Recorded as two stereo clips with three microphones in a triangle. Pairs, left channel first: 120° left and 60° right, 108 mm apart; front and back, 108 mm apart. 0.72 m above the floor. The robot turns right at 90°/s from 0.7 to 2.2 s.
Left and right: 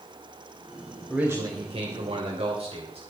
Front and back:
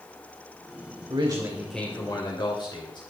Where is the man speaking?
145° right, 3 m; by 3.0 s 45° right, 3 m.